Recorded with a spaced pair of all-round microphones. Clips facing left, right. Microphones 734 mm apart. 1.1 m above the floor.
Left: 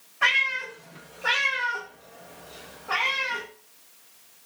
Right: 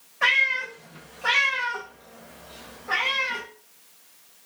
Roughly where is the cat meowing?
Centre.